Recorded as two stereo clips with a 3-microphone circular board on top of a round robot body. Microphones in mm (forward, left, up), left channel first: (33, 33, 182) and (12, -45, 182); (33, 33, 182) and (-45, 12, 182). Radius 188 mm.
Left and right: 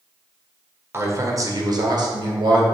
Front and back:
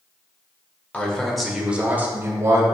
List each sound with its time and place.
0.9 s a man speaking: 55° right, 1.5 m; by 2.6 s 115° right, 1.8 m